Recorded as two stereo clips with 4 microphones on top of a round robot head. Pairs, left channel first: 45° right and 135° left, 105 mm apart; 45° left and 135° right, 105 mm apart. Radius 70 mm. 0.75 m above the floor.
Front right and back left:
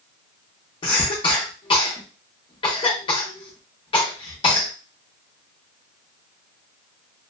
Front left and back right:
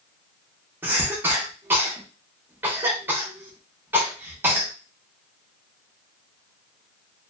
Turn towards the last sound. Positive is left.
turn(degrees=-70)